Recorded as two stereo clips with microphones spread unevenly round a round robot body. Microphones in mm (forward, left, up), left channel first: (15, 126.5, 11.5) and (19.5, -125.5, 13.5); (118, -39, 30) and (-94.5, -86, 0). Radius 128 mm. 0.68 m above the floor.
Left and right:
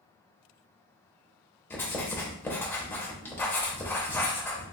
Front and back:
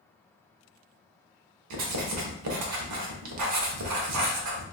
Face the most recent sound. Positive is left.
turn(degrees=175)